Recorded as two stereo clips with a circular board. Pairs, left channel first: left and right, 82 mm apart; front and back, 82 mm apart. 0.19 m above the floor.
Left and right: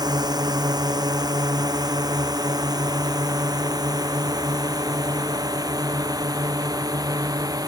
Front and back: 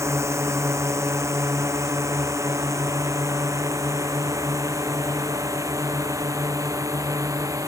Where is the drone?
125° right; by 7.7 s 130° right.